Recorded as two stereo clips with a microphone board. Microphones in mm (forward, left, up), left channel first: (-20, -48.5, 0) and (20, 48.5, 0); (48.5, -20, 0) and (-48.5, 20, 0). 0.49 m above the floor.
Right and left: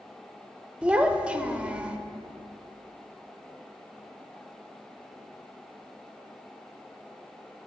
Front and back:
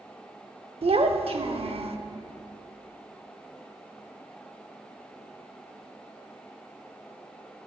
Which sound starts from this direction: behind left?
A child speaking, at 0.8 s.